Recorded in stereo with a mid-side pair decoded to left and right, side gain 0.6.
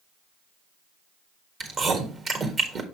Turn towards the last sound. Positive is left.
turn(degrees=-40)